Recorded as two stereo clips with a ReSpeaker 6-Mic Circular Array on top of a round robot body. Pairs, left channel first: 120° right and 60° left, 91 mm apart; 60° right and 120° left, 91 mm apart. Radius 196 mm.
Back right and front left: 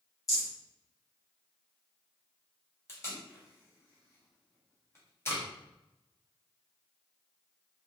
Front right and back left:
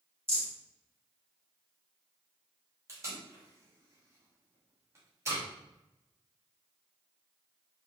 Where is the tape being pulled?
175° left, 1.2 m.